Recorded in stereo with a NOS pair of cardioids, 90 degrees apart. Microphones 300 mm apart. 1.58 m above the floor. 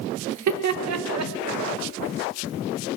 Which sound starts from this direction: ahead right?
Laughter, at 0.3 s.